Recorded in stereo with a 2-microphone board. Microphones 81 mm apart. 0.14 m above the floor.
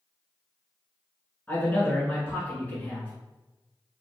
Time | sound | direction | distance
1.5 | a man speaking | 20° left (ahead or behind) | 1.5 m